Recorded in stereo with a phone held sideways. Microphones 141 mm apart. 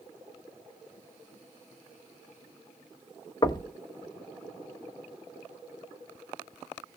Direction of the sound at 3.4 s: 30° left (ahead or behind).